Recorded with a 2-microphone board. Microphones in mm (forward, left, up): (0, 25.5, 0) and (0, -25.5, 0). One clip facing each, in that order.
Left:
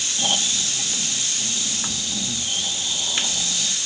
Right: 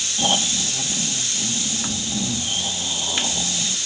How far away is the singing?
No singing in this recording.